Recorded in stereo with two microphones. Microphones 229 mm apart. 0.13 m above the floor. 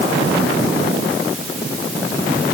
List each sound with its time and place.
Only background noise.